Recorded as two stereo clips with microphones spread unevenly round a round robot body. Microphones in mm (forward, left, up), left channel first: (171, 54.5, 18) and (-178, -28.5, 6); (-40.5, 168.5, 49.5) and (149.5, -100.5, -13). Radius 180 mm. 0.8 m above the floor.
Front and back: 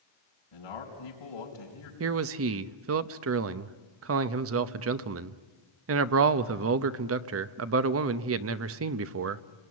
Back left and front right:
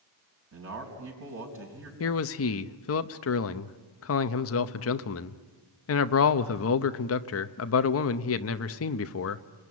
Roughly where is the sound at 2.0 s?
Behind.